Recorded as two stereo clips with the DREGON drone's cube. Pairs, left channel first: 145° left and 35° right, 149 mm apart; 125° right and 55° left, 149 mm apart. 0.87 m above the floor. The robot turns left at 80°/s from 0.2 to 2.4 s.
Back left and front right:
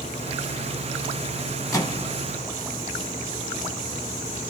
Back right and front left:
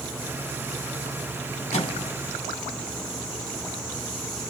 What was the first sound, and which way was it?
A microwave, 150° right.